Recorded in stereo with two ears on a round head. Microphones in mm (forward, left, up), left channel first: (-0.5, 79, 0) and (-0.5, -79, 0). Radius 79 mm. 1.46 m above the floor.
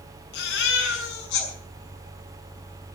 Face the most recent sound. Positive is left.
turn(degrees=80)